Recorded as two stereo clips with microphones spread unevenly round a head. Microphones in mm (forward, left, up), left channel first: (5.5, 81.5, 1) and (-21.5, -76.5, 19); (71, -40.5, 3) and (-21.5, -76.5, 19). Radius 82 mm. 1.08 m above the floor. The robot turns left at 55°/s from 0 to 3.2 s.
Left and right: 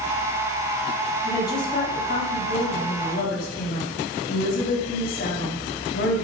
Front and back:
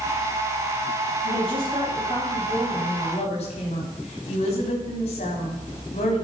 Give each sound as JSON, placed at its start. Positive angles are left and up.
{"t": 1.2, "sound": "a woman speaking", "azimuth_deg": 160, "distance_m": 3.0}